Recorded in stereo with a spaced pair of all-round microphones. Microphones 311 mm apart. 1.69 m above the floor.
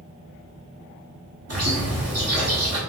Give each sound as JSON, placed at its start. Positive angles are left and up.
{"t": 1.5, "sound": "a bird", "side_deg": -50, "distance_m": 0.9}